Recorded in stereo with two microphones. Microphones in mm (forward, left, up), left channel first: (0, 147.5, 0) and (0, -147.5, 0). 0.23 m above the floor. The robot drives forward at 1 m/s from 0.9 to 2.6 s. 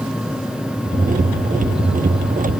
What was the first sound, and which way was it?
Only background noise.